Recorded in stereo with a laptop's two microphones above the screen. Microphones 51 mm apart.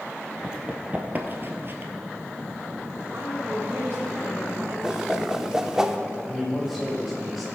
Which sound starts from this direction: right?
A woman speaking, at 3.1 s.